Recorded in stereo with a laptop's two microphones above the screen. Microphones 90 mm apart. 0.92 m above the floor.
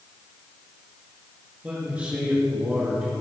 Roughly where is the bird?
No bird in this recording.